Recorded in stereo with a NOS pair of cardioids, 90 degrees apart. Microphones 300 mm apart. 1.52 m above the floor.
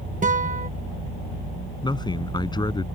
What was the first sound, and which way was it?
A guitar, 25° right.